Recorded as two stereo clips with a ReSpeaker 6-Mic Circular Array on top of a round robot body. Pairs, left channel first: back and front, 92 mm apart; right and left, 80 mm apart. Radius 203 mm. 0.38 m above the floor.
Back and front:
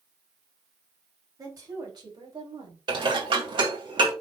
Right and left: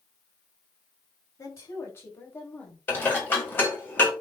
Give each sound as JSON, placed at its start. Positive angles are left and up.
{"t": 1.4, "sound": "a woman speaking", "azimuth_deg": -50, "distance_m": 3.0}
{"t": 2.9, "sound": "dishes clattering", "azimuth_deg": -25, "distance_m": 2.5}